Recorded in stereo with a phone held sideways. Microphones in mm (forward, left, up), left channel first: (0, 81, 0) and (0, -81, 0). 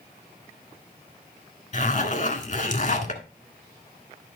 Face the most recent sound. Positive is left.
turn(degrees=50)  # may be behind; listen again after turning